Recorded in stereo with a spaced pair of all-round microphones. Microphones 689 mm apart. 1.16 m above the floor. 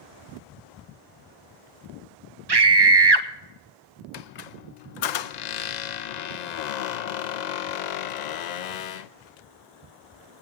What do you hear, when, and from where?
2.5 s a scream: 35° right (ahead or behind), 0.8 m
4.1 s a squeak: 70° left (ahead or behind), 0.6 m